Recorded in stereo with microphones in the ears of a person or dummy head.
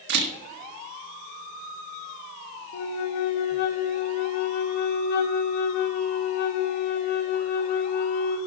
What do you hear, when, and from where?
0.1 s a camera shutter: 60° right (ahead or behind), 1.6 m
2.7 s a flute: 45° left (ahead or behind), 0.8 m